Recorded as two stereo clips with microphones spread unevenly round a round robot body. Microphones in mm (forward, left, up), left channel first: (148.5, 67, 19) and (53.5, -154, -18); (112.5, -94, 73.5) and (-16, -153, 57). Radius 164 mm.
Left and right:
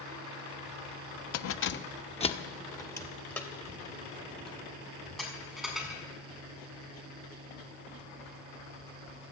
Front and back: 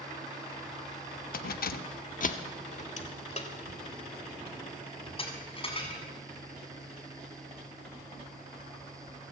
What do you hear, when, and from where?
1.3 s keys jangling: 50° left, 1.0 m; by 6.0 s 25° right, 7.5 m